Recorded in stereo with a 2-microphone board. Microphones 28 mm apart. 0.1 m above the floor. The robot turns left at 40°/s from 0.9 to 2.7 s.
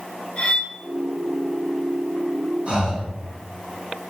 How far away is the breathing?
About 1.0 m.